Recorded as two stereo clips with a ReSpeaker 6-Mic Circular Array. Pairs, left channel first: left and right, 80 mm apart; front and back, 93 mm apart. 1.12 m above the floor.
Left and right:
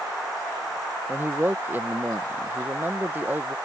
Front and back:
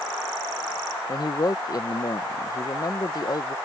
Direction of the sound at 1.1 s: 30° right.